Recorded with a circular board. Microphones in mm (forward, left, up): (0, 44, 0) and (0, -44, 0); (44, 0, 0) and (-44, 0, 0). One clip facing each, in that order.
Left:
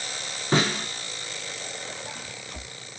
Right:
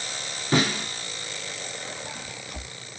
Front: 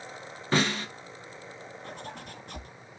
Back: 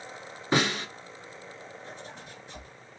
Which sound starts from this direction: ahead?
A zipper, at 1.8 s.